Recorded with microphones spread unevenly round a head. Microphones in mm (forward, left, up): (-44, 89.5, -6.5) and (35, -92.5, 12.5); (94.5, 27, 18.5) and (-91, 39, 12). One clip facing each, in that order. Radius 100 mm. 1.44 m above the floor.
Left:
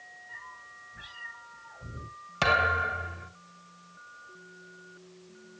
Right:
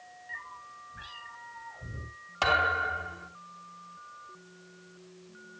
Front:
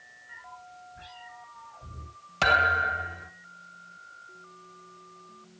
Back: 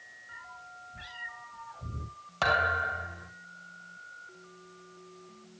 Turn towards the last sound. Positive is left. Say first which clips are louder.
# left 1 dB, front 2 dB
turn(degrees=55)